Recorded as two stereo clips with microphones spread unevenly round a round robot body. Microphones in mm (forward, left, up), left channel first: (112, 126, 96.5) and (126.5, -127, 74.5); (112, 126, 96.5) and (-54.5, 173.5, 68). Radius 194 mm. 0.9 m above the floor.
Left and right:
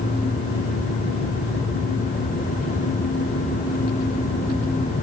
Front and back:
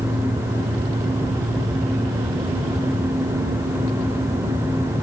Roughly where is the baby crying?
No baby crying in this recording.